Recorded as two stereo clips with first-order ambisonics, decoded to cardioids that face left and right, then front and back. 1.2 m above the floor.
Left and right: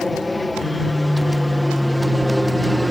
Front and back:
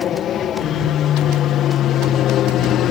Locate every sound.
0.0 s an aircraft: 15° left; by 2.9 s straight ahead